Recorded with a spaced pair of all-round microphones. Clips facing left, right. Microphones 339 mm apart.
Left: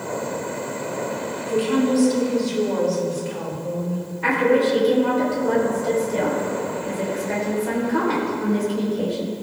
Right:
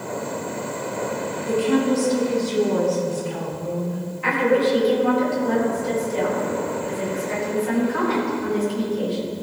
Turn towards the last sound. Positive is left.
turn(degrees=90)